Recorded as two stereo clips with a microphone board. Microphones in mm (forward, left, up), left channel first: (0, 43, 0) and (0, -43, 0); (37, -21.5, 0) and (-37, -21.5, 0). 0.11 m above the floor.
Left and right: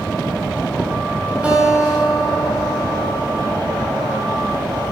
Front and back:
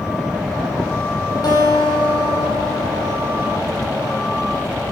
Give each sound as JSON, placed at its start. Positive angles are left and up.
{"t": 1.4, "sound": "a guitar", "azimuth_deg": -15, "distance_m": 4.5}